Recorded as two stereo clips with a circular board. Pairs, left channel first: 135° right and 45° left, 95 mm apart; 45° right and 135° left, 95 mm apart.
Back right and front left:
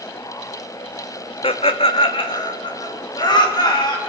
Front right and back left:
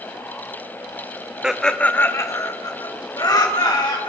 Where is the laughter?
145° right, 0.9 m; by 4.1 s 90° right, 4 m.